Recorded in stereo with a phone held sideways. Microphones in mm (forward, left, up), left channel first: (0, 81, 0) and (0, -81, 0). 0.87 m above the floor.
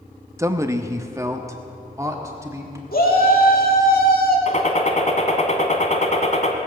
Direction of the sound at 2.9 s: 65° left (ahead or behind).